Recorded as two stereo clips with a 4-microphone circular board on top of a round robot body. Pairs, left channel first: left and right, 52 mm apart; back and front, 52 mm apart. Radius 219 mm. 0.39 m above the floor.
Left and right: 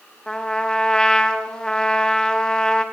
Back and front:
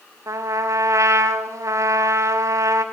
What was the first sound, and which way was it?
A trumpet, 15° left.